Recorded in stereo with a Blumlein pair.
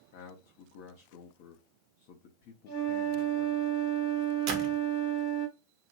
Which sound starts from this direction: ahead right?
A door slam, at 4.5 s.